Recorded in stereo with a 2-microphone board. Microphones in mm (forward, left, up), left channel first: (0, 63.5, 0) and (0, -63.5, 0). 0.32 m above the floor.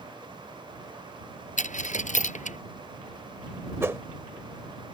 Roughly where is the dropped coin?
Left.